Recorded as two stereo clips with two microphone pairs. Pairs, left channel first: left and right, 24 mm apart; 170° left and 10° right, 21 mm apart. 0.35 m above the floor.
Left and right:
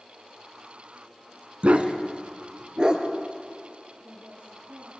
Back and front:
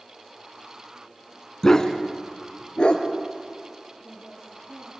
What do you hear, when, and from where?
1.6 s a dog barking: 115° right, 1.6 m; by 3.0 s 145° right, 3 m
4.0 s a woman speaking: 70° right, 8 m